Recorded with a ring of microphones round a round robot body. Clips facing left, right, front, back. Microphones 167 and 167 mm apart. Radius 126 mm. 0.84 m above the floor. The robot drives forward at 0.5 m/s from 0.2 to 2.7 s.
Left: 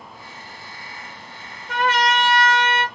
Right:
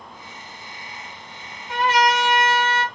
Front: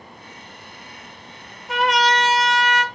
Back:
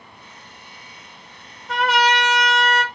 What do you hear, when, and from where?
1.7 s a trumpet: 80° left, 0.7 m; by 2.8 s 125° left, 0.9 m